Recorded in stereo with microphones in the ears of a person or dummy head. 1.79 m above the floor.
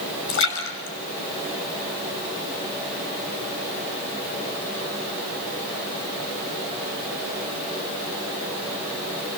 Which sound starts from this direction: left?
A splash, at 0.3 s.